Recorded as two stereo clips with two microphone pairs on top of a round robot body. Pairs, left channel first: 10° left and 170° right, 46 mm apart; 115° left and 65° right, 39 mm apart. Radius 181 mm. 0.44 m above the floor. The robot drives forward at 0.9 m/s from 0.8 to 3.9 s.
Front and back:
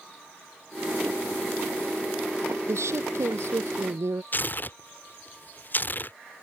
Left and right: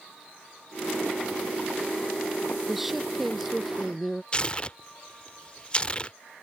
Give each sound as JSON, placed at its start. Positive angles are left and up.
{"t": 2.7, "sound": "a woman speaking", "azimuth_deg": -150}
{"t": 4.3, "sound": "tearing paper", "azimuth_deg": 55}